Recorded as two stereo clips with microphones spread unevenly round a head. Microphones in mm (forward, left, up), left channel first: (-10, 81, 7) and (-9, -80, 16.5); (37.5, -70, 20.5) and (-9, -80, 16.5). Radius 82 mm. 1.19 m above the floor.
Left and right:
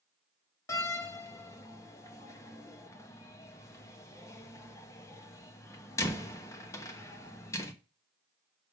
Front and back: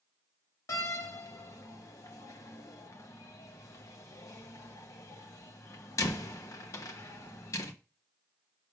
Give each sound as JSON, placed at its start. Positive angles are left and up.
{"t": 0.7, "sound": "a door slam", "azimuth_deg": 15, "distance_m": 1.0}